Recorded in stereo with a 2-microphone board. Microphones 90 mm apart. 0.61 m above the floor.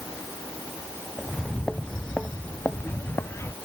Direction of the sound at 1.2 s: Centre (ahead or behind).